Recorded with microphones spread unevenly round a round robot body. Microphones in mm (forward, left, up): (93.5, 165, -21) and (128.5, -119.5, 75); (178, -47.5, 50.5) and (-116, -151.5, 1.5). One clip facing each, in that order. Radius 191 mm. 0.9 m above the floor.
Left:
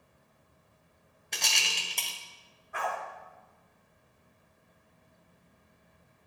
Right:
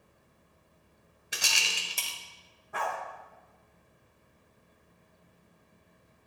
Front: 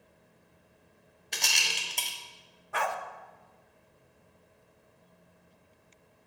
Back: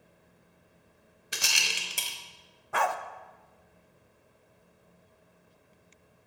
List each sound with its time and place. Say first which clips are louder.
1.3 s a rattle: even, even; 160° left, 0.5 m
2.7 s a dog barking: even, back 3 dB; 120° right, 0.6 m